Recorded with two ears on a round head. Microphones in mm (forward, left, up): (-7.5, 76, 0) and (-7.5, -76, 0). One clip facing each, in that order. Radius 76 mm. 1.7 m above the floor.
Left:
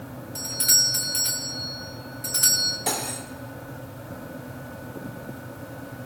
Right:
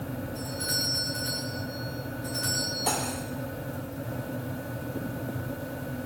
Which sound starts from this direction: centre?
Cutlery clinking, at 2.9 s.